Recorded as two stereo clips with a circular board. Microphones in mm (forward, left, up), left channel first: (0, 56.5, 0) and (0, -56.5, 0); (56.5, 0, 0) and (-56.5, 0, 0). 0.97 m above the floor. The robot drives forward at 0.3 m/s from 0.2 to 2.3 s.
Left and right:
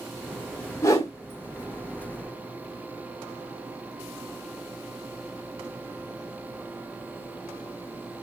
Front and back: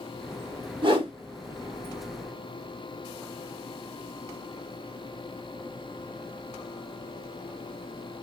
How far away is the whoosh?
About 0.9 m.